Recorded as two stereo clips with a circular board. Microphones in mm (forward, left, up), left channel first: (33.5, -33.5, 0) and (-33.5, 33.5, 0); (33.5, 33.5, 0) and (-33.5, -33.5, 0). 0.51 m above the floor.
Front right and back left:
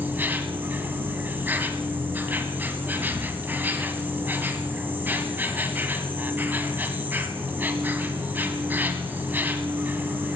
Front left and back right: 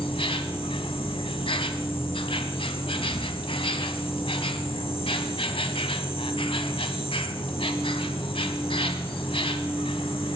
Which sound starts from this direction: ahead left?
An insect, at 0.0 s.